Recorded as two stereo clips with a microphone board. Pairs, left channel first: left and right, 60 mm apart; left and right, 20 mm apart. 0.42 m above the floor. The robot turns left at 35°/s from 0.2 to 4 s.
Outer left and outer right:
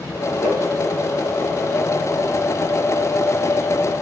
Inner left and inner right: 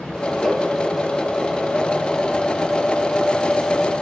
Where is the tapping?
15° left (ahead or behind), 1.8 m; by 0.6 s 10° left (ahead or behind), 1.8 m.